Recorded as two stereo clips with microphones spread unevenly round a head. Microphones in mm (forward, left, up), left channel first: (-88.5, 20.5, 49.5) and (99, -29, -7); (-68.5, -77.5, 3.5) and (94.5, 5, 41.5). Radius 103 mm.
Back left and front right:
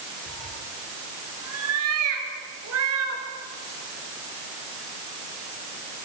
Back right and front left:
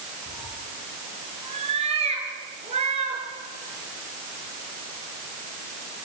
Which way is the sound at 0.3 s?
25° right.